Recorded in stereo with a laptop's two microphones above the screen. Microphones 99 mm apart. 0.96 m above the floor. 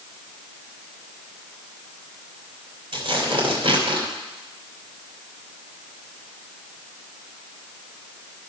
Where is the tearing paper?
65° right (ahead or behind), 2.5 m.